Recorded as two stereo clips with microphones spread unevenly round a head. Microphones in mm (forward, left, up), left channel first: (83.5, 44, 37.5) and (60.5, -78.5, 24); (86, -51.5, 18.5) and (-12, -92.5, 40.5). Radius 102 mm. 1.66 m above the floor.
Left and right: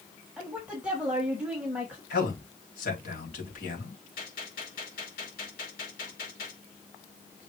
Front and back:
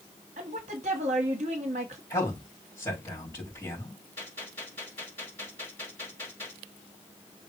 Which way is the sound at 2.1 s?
100° left.